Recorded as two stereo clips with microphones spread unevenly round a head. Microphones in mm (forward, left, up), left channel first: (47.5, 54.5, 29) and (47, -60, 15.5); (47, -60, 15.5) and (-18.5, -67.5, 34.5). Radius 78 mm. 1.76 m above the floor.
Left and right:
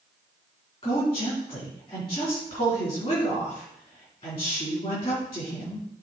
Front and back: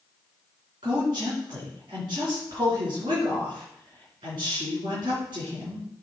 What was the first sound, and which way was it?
A woman speaking, 150° left.